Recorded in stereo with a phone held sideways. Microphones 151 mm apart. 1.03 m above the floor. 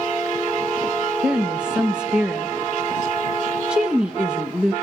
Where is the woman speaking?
5° right (ahead or behind), 0.9 m.